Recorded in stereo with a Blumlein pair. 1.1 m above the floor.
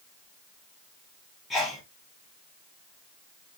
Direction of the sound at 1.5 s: 10° left.